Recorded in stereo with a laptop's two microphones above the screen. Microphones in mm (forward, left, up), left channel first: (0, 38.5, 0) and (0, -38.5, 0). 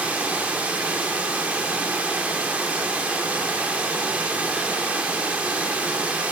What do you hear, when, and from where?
0.0 s running water: 20° right (ahead or behind), 0.7 m